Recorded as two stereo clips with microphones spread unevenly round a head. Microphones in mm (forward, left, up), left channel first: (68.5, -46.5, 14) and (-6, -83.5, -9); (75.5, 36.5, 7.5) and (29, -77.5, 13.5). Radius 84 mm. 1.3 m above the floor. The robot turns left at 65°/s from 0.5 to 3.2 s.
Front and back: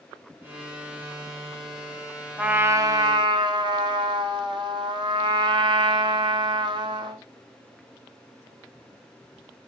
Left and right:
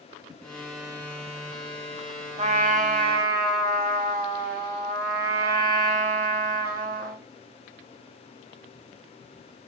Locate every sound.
2.4 s a trumpet: 80° right, 0.7 m; by 7.2 s 130° right, 0.7 m